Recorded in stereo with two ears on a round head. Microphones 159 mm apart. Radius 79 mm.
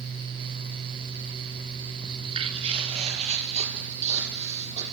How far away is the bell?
No bell in this recording.